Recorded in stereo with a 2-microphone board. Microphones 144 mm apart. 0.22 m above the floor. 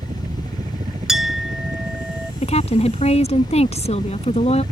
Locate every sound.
0.0 s a helicopter: 50° right (ahead or behind)
1.1 s a clink: centre (ahead or behind)
2.4 s a woman speaking: 50° left (ahead or behind)